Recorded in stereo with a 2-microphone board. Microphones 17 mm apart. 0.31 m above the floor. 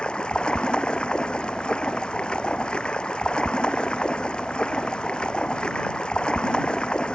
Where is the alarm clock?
I don't hear an alarm clock.